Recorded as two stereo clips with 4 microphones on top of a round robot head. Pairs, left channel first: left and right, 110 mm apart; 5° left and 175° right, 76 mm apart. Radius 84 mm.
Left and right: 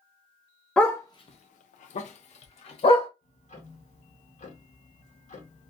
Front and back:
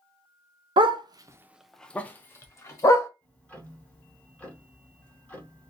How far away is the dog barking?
About 0.8 m.